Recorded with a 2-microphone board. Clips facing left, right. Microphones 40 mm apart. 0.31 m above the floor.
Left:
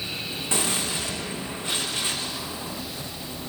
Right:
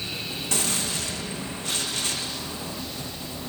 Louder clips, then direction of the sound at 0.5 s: Left 2 dB; 20° left (ahead or behind).